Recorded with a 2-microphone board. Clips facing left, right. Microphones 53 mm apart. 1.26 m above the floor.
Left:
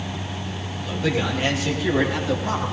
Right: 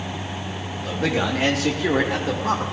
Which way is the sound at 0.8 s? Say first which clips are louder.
Right 1 dB; 75° right (ahead or behind).